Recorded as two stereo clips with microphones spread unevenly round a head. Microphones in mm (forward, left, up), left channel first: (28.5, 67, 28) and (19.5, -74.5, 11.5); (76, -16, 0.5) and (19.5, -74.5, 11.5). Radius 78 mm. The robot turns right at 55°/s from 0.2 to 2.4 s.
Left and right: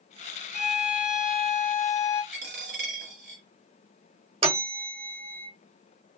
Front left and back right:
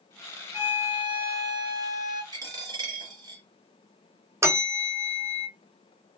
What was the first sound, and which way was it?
A violin, 60° left.